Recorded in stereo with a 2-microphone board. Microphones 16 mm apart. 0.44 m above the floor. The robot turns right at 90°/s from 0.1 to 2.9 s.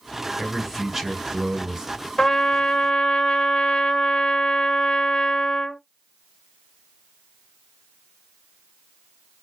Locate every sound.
0.4 s a man speaking: 155° left, 1.4 m; by 2.1 s 50° right, 1.4 m
2.2 s a trumpet: 35° left, 0.5 m; by 5.8 s 100° left, 0.5 m